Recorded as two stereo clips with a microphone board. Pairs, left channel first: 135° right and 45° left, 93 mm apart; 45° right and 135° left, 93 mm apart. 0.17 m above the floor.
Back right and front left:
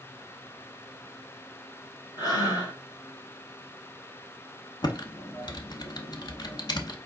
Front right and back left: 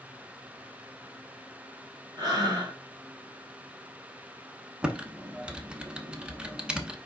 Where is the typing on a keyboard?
150° right, 0.7 m.